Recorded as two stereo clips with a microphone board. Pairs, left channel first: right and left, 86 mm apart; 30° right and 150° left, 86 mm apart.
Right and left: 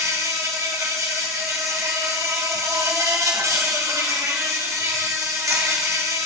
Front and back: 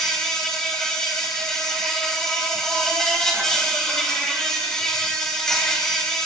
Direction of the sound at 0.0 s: 50° left.